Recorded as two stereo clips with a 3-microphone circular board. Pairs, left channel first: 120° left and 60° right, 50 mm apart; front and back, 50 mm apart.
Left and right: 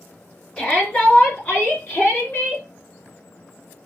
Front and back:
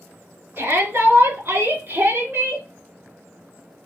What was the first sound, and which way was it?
A shout, 175° right.